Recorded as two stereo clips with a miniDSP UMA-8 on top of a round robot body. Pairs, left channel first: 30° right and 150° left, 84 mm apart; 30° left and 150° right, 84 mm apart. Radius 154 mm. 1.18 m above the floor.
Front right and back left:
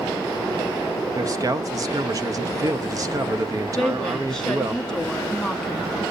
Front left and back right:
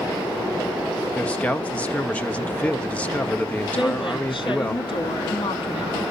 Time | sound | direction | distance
1.1 | a man speaking | 105° left | 1.1 m
3.8 | a woman speaking | 60° left | 2.5 m